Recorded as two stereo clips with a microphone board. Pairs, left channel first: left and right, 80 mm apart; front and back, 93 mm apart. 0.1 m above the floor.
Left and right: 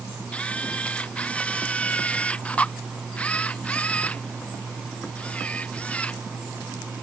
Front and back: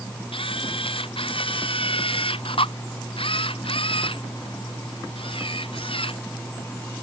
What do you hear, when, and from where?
0.3 s a camera shutter: 15° left